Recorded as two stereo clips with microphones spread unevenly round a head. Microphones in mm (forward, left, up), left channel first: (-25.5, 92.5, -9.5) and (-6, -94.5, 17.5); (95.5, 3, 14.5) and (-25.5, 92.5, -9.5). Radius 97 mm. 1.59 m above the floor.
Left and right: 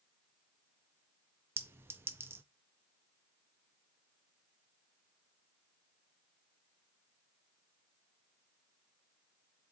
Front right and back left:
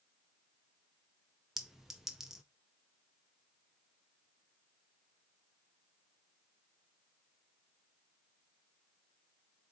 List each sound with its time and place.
1.6 s a clink: 110° right, 0.6 m